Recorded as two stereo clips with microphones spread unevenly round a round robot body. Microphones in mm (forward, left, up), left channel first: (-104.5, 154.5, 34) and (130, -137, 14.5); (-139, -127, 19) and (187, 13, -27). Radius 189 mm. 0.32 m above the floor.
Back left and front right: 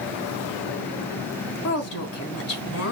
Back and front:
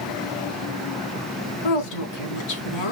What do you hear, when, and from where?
1.6 s a woman speaking: 175° right, 4 m